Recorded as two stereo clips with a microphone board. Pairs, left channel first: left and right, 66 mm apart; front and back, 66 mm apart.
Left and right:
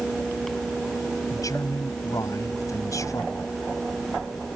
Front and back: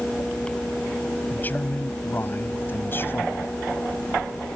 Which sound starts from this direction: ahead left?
A man speaking, at 1.3 s.